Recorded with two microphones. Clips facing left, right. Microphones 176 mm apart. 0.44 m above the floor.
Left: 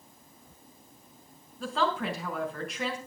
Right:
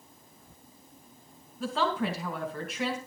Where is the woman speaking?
Centre (ahead or behind), 6 m.